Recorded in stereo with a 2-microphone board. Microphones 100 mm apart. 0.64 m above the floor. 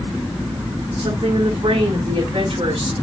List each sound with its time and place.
1.0 s a woman speaking: 75° right (ahead or behind), 4 m